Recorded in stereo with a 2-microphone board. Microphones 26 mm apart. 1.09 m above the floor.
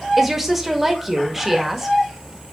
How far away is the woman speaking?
About 1.6 m.